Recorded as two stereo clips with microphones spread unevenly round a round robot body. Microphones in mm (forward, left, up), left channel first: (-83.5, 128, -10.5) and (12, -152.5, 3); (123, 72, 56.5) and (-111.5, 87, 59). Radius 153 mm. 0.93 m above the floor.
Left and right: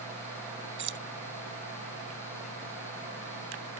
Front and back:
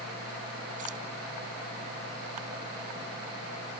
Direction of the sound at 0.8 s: 120° right.